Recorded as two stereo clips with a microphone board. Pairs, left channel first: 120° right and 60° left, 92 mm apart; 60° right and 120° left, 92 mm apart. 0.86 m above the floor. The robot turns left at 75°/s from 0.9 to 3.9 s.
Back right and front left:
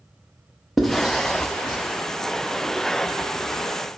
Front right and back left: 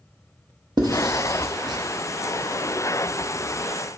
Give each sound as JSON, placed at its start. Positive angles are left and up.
{"t": 0.8, "sound": "writing", "azimuth_deg": 150, "distance_m": 1.1}